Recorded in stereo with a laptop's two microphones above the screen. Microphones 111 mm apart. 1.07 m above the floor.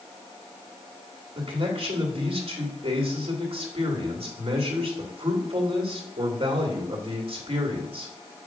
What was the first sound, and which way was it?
A man speaking, 55° right (ahead or behind).